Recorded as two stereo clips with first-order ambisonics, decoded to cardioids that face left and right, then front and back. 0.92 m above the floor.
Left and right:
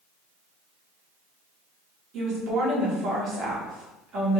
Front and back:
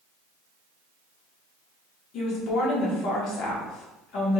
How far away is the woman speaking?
About 1.1 m.